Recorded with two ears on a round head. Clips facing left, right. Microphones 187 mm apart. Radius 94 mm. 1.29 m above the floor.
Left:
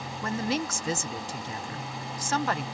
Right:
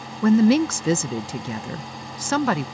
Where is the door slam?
No door slam in this recording.